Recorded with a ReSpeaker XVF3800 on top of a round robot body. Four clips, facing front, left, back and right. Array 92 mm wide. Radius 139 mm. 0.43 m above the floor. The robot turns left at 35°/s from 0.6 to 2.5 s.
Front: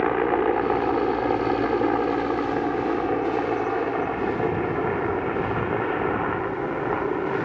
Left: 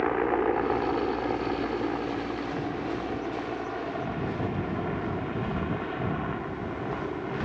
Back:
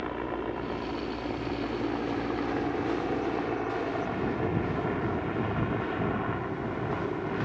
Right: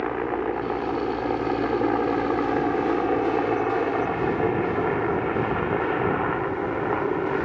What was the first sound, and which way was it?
A helicopter, 5° left.